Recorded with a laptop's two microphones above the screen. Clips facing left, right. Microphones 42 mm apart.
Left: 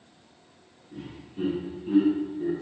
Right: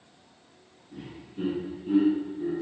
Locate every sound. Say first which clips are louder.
0.9 s laughter: left 1 dB; 5° right (ahead or behind), 1.9 m; by 2.5 s 5° left (ahead or behind), 1.0 m